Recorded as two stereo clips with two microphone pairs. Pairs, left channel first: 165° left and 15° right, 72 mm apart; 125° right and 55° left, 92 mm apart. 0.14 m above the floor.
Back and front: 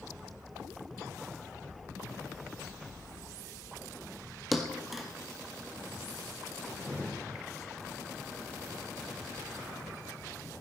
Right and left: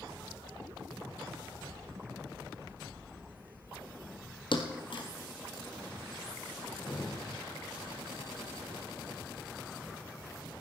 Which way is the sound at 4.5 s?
100° right.